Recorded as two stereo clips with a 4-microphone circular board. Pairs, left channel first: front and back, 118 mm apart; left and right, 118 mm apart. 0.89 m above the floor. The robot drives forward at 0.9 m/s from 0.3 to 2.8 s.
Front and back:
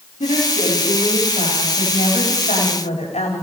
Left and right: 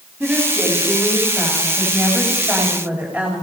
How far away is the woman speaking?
About 6.5 m.